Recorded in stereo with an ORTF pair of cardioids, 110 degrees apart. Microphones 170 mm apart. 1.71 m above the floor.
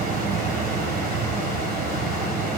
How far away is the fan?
About 1.1 m.